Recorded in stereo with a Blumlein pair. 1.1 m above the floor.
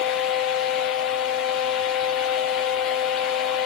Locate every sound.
0.0 s a fan: 35° left, 1.1 m